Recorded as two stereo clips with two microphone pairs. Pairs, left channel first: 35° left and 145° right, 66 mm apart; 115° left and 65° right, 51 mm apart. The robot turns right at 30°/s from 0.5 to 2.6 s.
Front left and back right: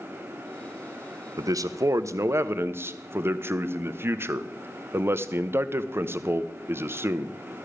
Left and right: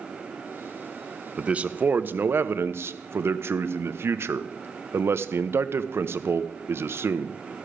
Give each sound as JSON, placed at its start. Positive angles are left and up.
{"t": 1.4, "sound": "a man speaking", "azimuth_deg": -135, "distance_m": 0.5}